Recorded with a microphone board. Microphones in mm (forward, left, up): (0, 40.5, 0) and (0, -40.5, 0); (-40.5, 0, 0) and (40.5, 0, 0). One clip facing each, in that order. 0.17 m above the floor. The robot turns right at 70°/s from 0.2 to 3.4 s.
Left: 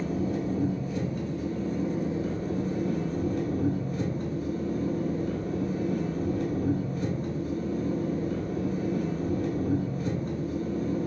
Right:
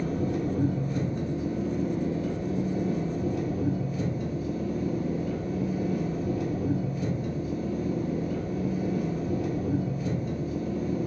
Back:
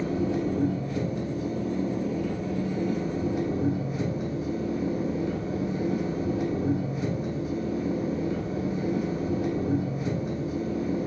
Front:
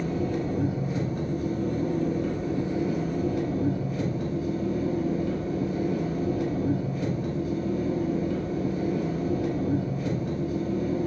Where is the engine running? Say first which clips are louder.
Right 1 dB, back 1 dB; 105° right, 1.1 m; by 11.1 s 120° left, 1.1 m.